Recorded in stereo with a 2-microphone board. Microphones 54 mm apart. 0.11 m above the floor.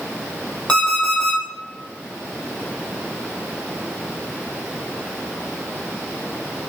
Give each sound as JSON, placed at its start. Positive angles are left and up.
{"t": 0.7, "sound": "an alarm clock", "side_deg": 15, "distance_m": 2.0}